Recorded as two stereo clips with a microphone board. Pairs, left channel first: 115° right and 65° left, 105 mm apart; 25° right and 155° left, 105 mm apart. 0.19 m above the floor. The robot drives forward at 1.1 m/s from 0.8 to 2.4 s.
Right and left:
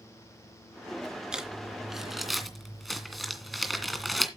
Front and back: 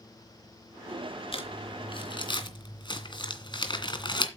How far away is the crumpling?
About 3 m.